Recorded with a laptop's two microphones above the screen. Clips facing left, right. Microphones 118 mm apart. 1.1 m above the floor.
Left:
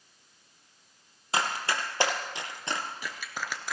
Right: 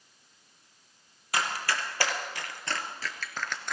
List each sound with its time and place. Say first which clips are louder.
1.3 s running footsteps: left 1 dB; 25° left (ahead or behind), 2 m; by 3.7 s 5° left (ahead or behind), 1.1 m